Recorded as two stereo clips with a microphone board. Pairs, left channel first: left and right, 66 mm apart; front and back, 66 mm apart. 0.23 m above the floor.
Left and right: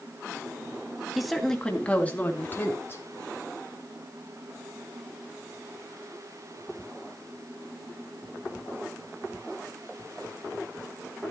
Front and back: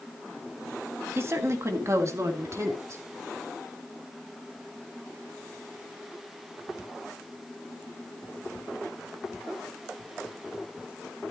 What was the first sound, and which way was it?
A woman speaking, 175° right.